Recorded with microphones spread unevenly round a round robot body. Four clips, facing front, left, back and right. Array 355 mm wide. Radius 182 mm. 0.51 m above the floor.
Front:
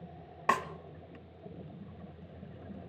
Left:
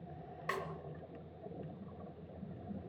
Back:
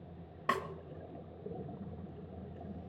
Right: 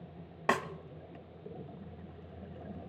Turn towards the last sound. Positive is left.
turn(degrees=-75)